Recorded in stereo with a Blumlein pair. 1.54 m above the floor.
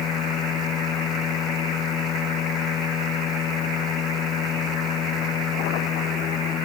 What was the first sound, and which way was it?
A machine running, 30° left.